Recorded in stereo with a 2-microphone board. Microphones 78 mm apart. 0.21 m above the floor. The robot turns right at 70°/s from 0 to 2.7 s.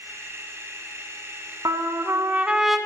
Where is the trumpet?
75° right, 0.5 m; by 2.8 s straight ahead, 0.5 m.